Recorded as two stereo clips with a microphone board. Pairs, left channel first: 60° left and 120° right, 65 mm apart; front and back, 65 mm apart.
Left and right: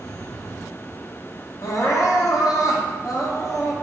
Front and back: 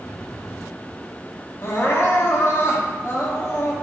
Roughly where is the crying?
Ahead left.